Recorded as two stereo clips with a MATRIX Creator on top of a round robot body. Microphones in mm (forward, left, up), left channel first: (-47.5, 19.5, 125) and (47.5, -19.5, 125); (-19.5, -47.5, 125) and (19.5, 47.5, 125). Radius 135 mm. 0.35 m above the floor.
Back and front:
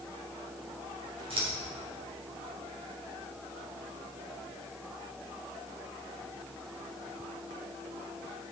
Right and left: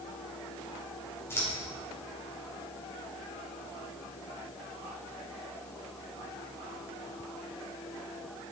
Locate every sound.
1.3 s scissors: 45° right, 3.5 m